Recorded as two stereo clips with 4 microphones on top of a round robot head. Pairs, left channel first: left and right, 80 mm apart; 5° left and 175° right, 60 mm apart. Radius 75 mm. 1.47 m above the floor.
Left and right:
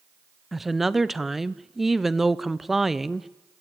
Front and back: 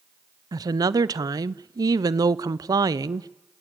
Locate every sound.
0.5 s a woman speaking: straight behind, 0.7 m